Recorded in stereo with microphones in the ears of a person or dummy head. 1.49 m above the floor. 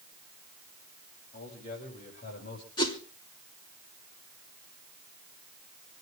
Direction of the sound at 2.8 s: 25° left (ahead or behind).